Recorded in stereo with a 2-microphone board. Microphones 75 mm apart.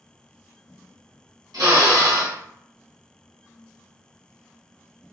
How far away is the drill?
About 1.8 m.